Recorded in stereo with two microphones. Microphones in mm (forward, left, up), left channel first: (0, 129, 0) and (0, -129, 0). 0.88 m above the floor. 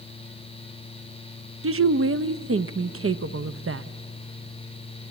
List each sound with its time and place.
1.6 s a woman speaking: 55° right (ahead or behind), 0.5 m